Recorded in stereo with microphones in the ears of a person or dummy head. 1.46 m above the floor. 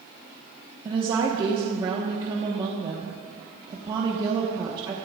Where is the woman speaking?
25° right (ahead or behind), 1.2 m.